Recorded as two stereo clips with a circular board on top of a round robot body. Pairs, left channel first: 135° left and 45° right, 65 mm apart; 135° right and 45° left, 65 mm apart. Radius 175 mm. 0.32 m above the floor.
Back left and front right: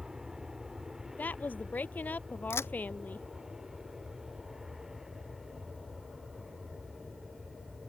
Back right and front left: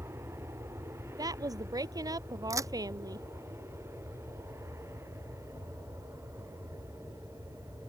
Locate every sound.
0.0 s an aircraft: 35° left; by 7.9 s 40° left
1.2 s a woman speaking: 70° left
2.5 s a crack: 85° left